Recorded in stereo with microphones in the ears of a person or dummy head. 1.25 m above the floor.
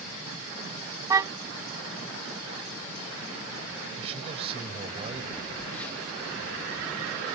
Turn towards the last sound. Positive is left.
turn(degrees=10)  # may be behind; listen again after turning